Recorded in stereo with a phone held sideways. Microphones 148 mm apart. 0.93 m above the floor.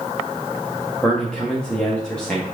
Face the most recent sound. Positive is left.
turn(degrees=5)  # may be behind; listen again after turning